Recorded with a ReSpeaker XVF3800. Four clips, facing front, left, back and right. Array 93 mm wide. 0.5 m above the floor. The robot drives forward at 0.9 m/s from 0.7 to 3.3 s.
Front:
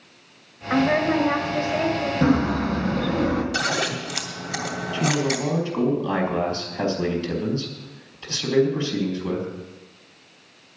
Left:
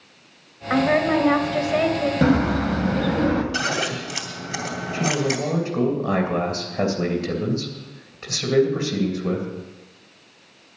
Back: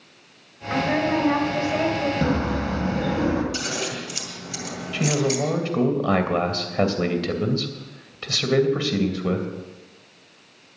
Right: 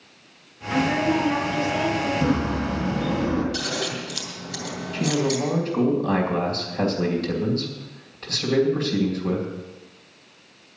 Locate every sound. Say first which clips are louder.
0.7 s a woman speaking: left 3 dB, front 2 dB; 70° left, 2.5 m; by 2.1 s 105° left, 2 m
2.2 s a bird: left 4 dB, front 3 dB; 85° left, 2.5 m; by 3.4 s 110° left, 2.5 m
3.5 s scissors: left 4 dB, front 4 dB; 60° left, 2.5 m
4.9 s a man speaking: even, back 1 dB; 165° left, 2.5 m